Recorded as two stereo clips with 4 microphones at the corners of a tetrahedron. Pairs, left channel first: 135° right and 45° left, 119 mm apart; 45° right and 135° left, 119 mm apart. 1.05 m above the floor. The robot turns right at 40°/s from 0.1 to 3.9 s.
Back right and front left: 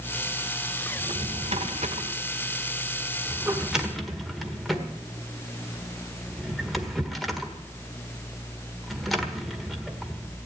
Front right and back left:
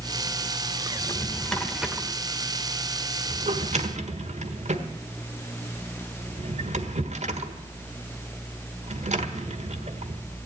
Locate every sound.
1.0 s a drawer: 20° left, 1.4 m; by 10.2 s 135° left, 1.4 m